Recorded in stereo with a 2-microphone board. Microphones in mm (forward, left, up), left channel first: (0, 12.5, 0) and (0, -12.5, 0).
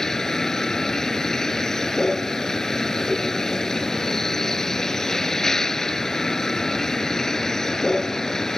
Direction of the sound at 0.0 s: 15° left (ahead or behind).